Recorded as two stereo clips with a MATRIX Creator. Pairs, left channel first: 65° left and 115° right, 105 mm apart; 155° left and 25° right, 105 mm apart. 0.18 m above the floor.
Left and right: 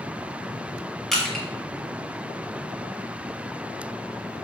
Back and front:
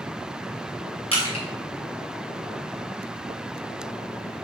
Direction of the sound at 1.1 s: 155° left.